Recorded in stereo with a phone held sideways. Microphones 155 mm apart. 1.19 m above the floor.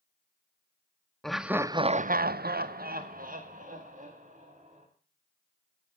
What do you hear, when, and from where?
1.2 s laughter: 5° left (ahead or behind), 0.7 m; by 4.9 s 50° right (ahead or behind), 2.5 m